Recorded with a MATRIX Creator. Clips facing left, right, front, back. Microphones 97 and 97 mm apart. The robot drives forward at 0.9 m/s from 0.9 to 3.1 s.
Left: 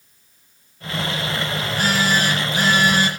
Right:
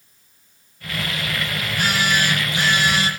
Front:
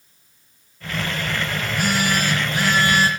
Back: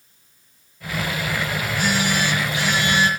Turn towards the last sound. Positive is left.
turn(degrees=50)